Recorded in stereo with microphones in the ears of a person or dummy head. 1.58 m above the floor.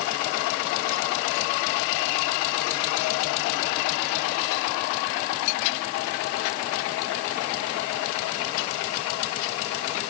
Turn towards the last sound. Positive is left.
No sound to turn to.